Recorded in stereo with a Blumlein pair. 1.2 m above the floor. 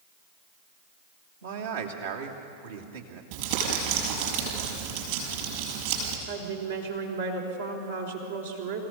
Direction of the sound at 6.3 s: 70° right.